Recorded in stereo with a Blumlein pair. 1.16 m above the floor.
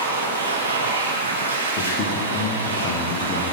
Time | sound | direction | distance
0.0 | a machine running | 70° right | 1.0 m
1.8 | a man speaking | 40° left | 1.1 m